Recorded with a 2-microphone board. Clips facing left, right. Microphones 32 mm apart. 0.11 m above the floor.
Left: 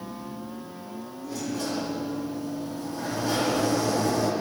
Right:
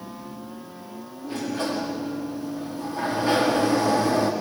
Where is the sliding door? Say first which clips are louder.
Right 4 dB; 40° right (ahead or behind), 6 m.